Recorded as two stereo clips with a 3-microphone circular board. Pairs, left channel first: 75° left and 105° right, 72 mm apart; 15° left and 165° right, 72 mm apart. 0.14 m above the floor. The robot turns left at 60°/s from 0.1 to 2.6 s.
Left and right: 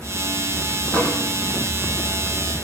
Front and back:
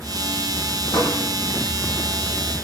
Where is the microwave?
5° left, 6 m; by 1.2 s 15° right, 6 m.